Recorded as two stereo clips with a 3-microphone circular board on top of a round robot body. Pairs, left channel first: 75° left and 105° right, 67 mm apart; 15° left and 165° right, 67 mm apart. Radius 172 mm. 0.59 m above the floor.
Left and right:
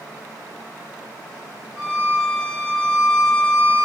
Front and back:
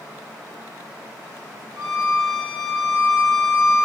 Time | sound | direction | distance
1.8 | a violin | 175° right | 1.4 m